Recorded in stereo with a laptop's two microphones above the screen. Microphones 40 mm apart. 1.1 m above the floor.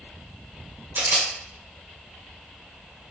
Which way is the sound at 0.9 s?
65° right (ahead or behind).